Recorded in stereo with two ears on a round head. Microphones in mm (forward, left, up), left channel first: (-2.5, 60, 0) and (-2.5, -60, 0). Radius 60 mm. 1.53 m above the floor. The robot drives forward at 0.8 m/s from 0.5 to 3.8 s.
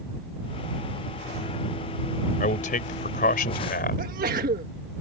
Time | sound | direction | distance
2.4 | a man speaking | 60° left (ahead or behind) | ?
4.0 | a sneeze | 75° right (ahead or behind) | ?